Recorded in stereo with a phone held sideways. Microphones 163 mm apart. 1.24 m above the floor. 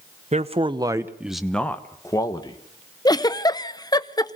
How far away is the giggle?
About 0.6 m.